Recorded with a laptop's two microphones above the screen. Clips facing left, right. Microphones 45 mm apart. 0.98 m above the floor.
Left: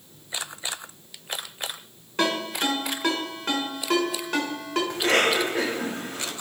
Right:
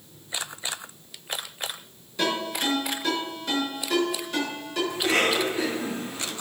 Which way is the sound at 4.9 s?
65° left (ahead or behind).